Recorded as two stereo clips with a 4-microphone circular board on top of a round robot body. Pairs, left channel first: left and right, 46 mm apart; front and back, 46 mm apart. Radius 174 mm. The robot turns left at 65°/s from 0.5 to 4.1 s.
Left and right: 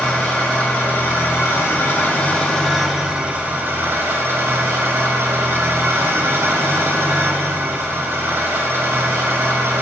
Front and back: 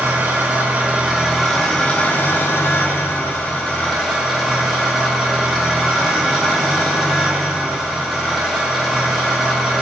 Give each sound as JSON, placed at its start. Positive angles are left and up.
{"t": 0.0, "sound": "an engine running", "azimuth_deg": 150, "distance_m": 2.0}